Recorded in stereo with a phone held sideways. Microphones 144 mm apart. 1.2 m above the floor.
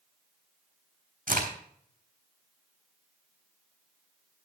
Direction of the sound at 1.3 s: 80° right.